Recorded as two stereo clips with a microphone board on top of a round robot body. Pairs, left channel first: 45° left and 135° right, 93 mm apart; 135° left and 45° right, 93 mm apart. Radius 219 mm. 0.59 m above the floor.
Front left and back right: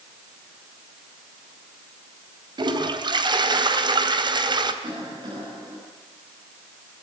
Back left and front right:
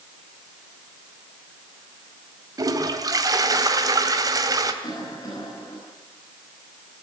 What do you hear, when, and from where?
2.6 s a toilet flushing: 95° right, 2.5 m
4.8 s a cough: 175° right, 9.5 m